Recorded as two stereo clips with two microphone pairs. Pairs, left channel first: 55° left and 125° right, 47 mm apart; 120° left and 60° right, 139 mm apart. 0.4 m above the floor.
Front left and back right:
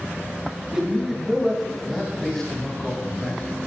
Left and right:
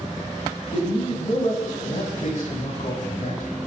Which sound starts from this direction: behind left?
A man speaking, at 0.7 s.